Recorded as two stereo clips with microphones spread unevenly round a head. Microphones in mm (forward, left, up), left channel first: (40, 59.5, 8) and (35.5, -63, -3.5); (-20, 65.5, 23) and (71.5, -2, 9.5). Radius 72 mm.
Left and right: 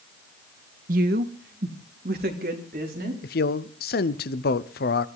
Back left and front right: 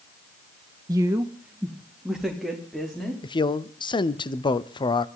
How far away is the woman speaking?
About 1.0 m.